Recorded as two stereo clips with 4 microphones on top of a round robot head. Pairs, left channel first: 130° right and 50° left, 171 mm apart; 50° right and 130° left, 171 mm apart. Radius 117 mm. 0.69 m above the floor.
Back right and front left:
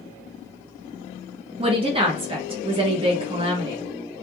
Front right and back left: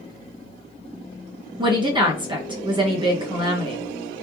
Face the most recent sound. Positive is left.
turn(degrees=85)